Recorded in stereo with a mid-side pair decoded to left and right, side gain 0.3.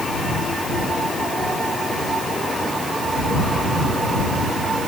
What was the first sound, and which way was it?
Only background noise.